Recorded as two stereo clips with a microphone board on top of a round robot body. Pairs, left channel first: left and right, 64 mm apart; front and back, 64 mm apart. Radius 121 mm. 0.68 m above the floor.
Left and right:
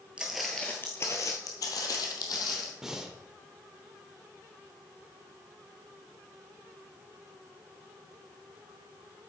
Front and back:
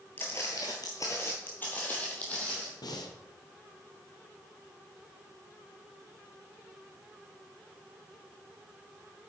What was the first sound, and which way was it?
Footsteps, 35° right.